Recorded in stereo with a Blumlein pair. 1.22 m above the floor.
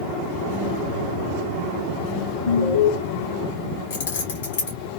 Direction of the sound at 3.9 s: 60° left.